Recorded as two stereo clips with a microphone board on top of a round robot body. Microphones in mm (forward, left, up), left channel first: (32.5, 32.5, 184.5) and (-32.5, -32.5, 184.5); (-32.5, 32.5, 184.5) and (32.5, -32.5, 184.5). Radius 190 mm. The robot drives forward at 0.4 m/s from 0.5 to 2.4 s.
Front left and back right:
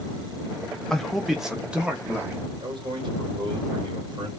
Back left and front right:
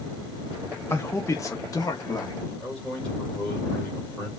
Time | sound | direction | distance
0.9 | a man speaking | 120° left | 0.9 m
2.6 | a man speaking | 145° right | 2.5 m